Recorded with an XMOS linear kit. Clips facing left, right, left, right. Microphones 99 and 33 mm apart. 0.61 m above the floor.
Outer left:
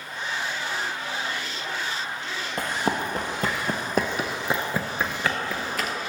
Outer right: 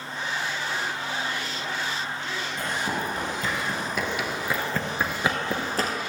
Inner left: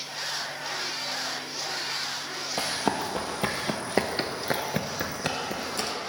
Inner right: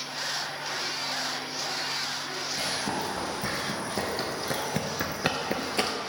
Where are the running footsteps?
65° left (ahead or behind), 1.5 m; by 5.9 s 40° right (ahead or behind), 0.8 m.